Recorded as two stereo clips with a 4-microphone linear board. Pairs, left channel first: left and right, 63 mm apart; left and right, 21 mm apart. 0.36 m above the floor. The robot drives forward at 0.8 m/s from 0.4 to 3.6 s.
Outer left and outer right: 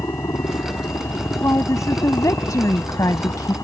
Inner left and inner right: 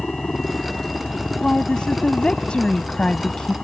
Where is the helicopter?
65° left (ahead or behind); by 3.6 s 60° left (ahead or behind).